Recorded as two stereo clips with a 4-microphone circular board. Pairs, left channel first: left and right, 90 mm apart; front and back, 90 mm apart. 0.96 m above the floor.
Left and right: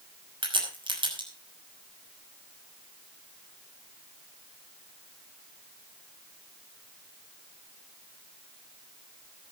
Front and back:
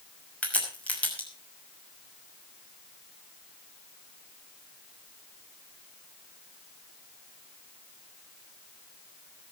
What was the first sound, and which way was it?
A crack, 75° right.